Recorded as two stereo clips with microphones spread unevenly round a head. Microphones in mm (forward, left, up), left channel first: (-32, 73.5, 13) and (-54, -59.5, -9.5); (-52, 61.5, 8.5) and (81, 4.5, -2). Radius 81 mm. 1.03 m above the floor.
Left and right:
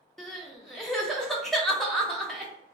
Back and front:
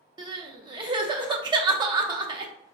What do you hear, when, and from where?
0.2 s crying: 15° left, 0.5 m